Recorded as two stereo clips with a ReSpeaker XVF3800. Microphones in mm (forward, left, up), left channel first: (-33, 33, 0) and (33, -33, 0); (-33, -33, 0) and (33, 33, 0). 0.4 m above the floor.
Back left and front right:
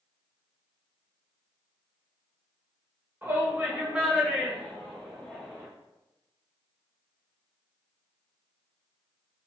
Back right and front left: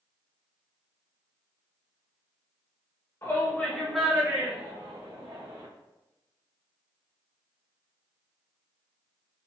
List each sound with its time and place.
3.2 s a shout: 100° right, 1.3 m; by 5.7 s 60° left, 2 m